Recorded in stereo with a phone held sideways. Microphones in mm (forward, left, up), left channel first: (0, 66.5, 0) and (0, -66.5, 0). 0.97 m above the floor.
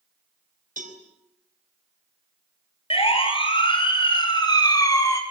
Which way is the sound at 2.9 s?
45° left (ahead or behind).